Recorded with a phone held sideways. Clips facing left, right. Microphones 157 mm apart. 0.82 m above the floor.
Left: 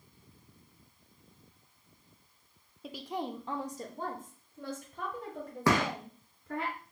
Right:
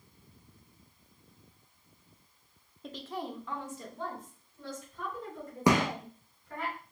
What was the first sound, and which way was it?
A woman speaking, 5° left (ahead or behind).